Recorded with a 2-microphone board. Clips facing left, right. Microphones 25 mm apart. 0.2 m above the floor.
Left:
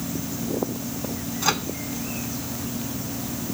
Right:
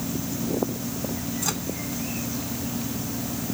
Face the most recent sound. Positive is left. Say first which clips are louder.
# left 9 dB
turn(degrees=35)  # may be behind; listen again after turning